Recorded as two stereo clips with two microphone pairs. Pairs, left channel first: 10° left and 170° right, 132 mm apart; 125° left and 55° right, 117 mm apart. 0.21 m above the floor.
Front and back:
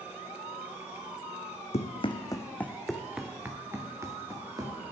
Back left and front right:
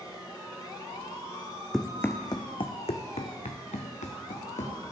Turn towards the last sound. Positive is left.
turn(degrees=130)